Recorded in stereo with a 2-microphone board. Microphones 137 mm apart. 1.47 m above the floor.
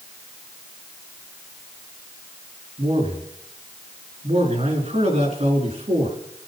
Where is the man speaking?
50° right (ahead or behind), 3.5 m.